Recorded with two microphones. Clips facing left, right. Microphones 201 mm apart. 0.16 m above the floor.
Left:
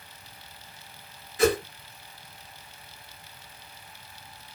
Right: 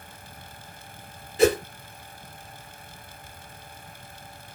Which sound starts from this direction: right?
A whoosh, at 1.4 s.